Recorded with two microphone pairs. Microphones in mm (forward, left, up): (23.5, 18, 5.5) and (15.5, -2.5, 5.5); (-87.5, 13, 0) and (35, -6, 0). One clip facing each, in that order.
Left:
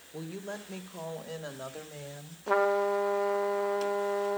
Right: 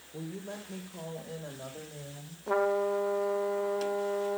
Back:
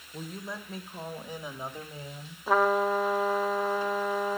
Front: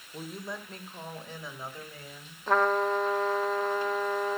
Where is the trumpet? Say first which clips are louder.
Left 2 dB, back 1 dB; 95° left, 0.9 m.